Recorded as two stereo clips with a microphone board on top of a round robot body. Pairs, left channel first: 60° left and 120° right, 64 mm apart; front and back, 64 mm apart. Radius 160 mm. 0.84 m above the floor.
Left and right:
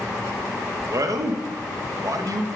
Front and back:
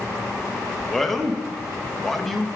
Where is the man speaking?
85° right, 0.9 m.